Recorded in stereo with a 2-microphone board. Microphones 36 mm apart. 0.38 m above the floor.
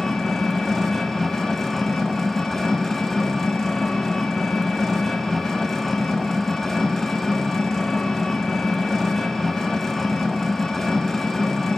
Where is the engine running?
Centre (ahead or behind), 1.8 m.